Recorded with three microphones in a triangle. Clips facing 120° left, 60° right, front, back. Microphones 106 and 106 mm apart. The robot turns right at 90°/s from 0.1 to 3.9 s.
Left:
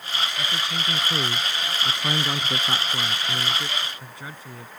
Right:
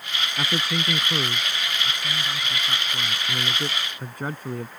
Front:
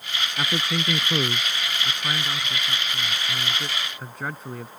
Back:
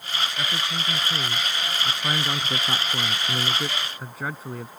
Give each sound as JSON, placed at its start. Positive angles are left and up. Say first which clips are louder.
{"t": 0.4, "sound": "a man speaking", "louder": "right 3 dB, front 3 dB", "azimuth_deg": -50}